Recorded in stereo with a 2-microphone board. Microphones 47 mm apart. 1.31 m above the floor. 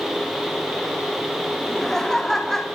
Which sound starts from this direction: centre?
Laughter, at 1.6 s.